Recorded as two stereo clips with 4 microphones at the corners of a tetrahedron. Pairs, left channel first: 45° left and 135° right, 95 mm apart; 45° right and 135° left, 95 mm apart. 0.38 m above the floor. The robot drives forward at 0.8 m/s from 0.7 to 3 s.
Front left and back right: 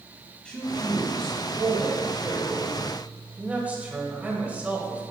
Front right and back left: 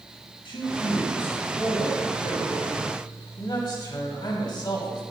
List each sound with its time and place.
0.5 s a man speaking: 35° right, 3.5 m; by 5.0 s 65° right, 2.5 m